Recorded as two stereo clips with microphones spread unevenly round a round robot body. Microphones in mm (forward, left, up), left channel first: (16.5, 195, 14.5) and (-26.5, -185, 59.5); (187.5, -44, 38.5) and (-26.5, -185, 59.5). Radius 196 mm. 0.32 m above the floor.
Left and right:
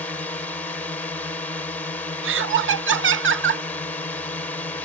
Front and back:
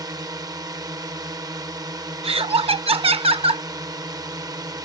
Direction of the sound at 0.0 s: 145° left.